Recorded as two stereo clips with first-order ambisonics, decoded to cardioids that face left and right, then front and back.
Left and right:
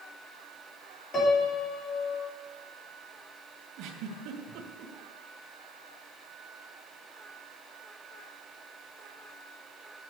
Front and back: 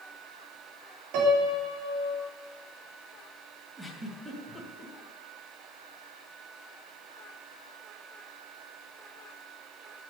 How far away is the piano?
About 3 m.